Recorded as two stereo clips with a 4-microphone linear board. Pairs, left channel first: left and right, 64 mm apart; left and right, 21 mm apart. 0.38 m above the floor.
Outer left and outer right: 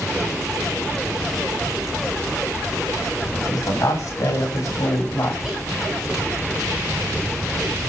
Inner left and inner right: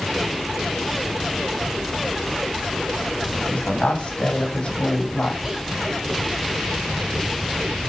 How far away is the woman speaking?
About 3 m.